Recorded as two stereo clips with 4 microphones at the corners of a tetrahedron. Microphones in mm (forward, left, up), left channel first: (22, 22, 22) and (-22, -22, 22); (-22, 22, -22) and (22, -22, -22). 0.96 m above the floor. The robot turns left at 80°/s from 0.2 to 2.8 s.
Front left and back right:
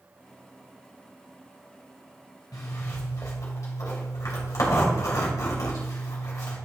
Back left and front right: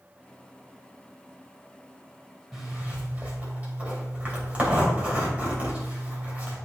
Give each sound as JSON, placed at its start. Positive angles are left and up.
{"t": 2.5, "sound": "a zipper", "azimuth_deg": 40, "distance_m": 2.5}